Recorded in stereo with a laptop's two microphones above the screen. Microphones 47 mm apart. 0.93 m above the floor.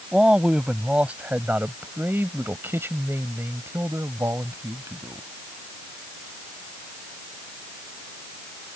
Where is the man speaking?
20° right (ahead or behind); by 5.2 s 85° right.